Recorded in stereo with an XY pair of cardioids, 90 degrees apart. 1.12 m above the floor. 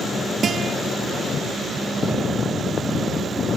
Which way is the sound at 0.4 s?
50° right.